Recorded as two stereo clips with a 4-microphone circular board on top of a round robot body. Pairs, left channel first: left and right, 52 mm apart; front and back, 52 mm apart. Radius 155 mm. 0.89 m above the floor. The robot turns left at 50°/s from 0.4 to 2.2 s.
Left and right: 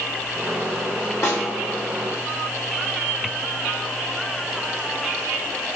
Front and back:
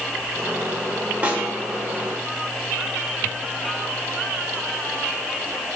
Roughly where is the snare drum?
Behind left.